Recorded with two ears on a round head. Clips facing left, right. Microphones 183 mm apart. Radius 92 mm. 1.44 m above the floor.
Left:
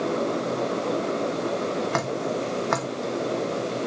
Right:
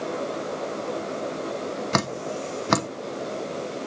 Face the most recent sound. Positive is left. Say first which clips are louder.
# left 2 dB
turn(degrees=-50)  # may be behind; listen again after turning